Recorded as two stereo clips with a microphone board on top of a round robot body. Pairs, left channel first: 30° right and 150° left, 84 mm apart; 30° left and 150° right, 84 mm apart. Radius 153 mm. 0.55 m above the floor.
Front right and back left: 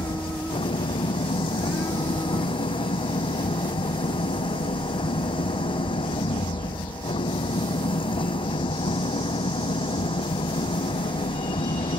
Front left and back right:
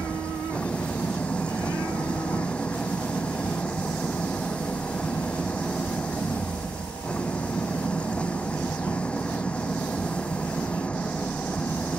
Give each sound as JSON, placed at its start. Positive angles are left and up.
{"t": 0.0, "sound": "an engine running", "azimuth_deg": -45}